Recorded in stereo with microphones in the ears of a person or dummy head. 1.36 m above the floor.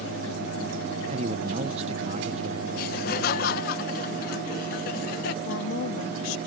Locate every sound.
1.1 s a man speaking: 45° right (ahead or behind)
2.8 s laughter: 55° left (ahead or behind)
5.5 s a woman speaking: 80° left